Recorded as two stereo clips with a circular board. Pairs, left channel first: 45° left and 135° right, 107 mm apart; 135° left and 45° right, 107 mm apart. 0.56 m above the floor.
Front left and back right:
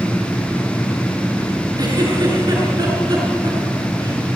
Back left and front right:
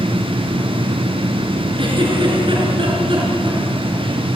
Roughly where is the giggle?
Right.